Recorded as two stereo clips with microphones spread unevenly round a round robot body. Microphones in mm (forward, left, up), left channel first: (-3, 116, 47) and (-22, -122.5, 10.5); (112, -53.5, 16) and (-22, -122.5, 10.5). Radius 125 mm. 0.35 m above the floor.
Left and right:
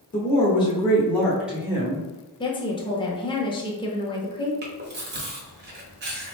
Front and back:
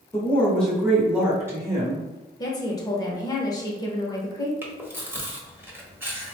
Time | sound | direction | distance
0.1 | a woman speaking | 80° left | 1.1 m
2.4 | a woman speaking | 25° left | 0.8 m
4.6 | chewing | 80° right | 1.2 m